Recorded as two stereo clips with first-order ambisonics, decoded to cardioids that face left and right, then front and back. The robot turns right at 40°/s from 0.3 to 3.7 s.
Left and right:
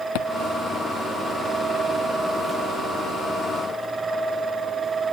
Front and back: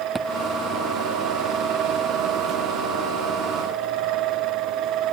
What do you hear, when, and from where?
0.1 s a thud: 100° left